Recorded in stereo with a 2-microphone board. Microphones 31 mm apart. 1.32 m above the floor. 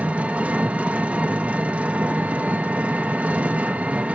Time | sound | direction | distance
0.0 | an engine running | 50° right (ahead or behind) | 0.8 m